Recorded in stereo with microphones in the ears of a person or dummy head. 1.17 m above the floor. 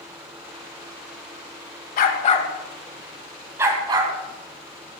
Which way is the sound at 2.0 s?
55° left (ahead or behind).